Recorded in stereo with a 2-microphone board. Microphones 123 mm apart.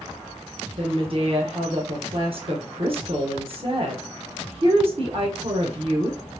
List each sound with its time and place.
0.8 s a woman speaking: 50° right (ahead or behind), 1.1 m